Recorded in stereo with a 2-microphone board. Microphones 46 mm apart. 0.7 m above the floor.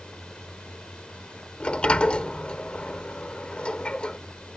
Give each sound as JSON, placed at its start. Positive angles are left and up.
{"t": 0.0, "sound": "a drone", "side_deg": 20}
{"t": 1.6, "sound": "a sliding door", "side_deg": 25}